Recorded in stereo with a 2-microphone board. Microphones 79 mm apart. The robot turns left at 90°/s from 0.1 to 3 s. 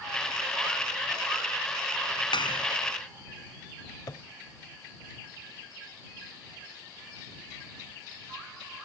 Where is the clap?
100° left; by 2.7 s 65° left.